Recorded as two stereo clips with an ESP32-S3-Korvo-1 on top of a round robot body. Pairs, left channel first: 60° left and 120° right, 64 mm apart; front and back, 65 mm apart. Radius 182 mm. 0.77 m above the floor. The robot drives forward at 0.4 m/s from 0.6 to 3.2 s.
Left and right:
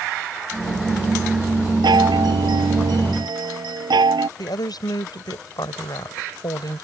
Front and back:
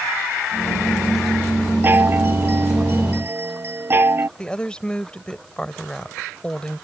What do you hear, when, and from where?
1.8 s a chime: 120° right; by 4.3 s 125° right
4.4 s a woman speaking: 75° left